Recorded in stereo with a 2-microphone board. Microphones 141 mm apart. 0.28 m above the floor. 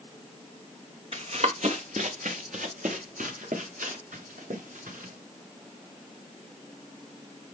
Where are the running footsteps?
55° right (ahead or behind), 1.5 m; by 5.1 s 85° right, 4 m.